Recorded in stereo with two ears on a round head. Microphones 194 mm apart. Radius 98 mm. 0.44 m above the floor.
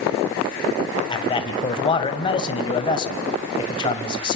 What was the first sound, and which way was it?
A man speaking, 25° left (ahead or behind).